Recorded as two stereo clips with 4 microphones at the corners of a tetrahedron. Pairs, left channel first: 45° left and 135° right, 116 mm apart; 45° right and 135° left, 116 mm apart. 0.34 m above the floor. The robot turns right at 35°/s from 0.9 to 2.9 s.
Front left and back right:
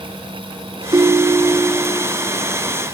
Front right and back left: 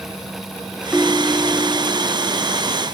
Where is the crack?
I don't hear a crack.